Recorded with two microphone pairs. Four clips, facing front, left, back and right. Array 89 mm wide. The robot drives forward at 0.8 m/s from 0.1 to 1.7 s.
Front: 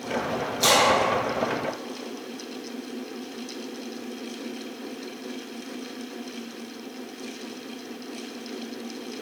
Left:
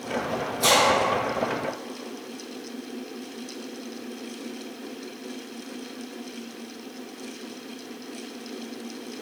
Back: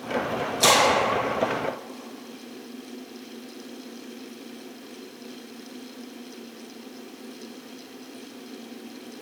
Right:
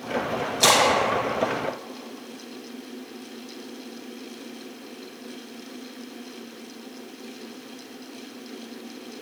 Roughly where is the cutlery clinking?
No cutlery clinking in this recording.